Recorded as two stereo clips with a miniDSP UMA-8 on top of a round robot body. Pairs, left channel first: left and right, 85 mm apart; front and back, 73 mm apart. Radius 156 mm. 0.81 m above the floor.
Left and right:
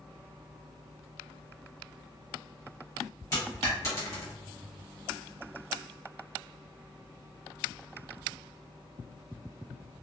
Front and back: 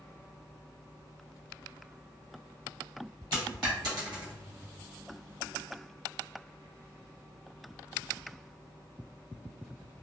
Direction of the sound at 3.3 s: 150° left.